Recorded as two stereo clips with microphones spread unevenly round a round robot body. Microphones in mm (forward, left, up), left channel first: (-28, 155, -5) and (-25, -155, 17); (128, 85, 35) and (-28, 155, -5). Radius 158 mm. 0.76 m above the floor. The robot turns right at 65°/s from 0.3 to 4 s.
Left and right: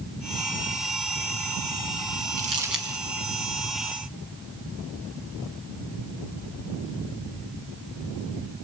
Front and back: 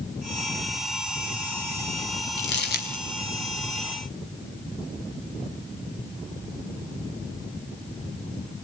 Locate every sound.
2.4 s crumpling: 25° right, 5 m; by 3.0 s 20° left, 5 m